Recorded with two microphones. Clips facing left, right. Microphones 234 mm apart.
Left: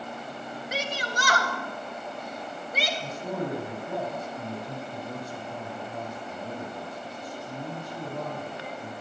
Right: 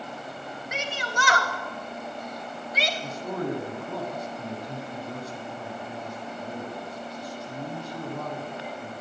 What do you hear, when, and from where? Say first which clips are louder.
0.7 s a shout: left 1 dB; 35° left (ahead or behind), 2.5 m; by 2.9 s 55° left (ahead or behind), 2.5 m
3.0 s a man speaking: right 2 dB; 55° left (ahead or behind), 5 m